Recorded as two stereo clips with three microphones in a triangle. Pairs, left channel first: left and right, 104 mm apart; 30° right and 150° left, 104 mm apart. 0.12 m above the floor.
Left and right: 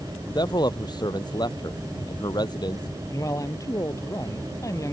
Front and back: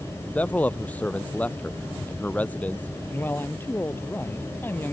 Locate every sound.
0.3 s a man speaking: 45° left
3.1 s a man speaking: 35° left